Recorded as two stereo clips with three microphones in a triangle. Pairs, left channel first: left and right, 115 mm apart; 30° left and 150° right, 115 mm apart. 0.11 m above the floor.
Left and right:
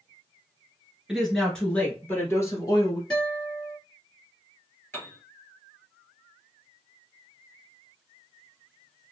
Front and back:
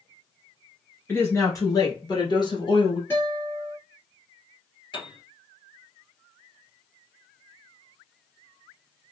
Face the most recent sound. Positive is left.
turn(degrees=35)